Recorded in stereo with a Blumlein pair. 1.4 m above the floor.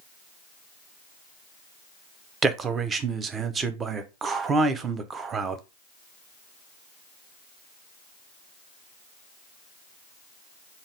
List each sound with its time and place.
2.4 s a man speaking: 20° right, 0.5 m